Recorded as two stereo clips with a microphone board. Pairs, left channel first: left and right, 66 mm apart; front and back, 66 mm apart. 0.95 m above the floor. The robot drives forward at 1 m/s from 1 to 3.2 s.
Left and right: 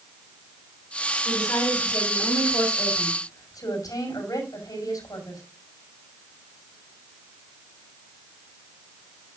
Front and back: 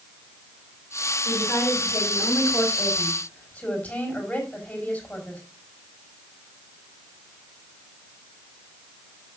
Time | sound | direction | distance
1.2 | a woman speaking | 55° left | 6 m